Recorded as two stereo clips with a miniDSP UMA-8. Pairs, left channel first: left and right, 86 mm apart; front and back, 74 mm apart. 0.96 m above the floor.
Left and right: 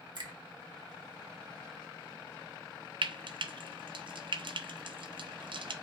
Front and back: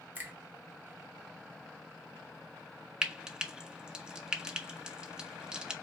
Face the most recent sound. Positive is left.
turn(degrees=-100)